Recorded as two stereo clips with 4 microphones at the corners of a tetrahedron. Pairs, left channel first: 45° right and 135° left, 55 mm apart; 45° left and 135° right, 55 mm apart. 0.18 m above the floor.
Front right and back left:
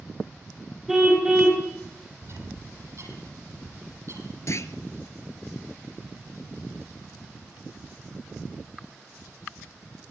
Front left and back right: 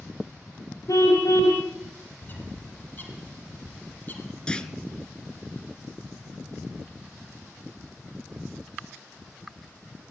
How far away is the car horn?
About 5.5 m.